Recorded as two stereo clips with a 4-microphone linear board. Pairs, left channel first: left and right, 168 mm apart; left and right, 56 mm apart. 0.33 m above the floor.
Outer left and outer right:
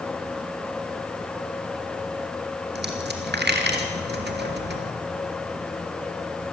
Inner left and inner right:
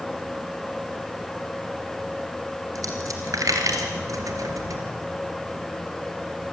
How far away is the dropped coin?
About 3 m.